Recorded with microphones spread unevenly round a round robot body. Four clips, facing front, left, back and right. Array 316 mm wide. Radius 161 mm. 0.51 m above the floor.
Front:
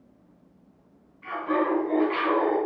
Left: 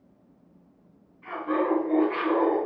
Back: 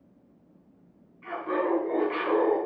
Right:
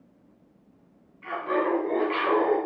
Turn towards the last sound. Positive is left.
turn(degrees=-85)